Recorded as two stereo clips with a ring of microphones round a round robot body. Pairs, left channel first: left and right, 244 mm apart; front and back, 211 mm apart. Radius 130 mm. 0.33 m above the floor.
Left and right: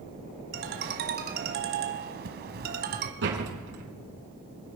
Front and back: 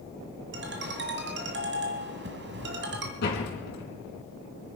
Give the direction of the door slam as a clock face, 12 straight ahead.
2 o'clock.